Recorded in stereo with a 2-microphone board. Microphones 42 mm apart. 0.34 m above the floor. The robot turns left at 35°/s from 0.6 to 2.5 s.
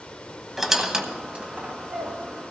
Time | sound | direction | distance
0.6 | a squeak | 5° right (ahead or behind) | 1.2 m